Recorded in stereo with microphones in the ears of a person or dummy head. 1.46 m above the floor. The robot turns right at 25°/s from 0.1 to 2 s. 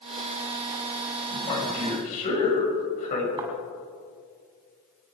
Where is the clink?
I don't hear a clink.